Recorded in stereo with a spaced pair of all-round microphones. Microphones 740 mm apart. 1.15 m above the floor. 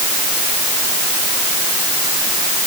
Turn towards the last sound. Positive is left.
No sound to turn to.